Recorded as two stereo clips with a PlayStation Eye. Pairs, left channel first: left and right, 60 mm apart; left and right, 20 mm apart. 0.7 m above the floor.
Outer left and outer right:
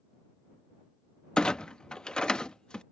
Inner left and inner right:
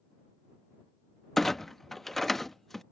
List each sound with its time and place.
1.4 s a clunk: 15° left (ahead or behind)